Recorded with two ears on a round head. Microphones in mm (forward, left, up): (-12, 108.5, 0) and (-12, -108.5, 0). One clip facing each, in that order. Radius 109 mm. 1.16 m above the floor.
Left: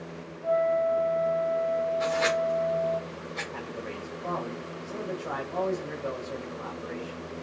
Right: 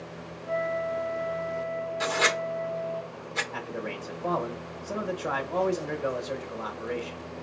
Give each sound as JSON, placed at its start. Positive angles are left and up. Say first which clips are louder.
{"t": 0.4, "sound": "a flute", "louder": "left 5 dB", "side_deg": -30, "distance_m": 2.5}
{"t": 2.0, "sound": "writing", "louder": "left 2 dB", "side_deg": -60, "distance_m": 1.6}
{"t": 3.5, "sound": "a man speaking", "louder": "right 4 dB", "side_deg": -70, "distance_m": 1.2}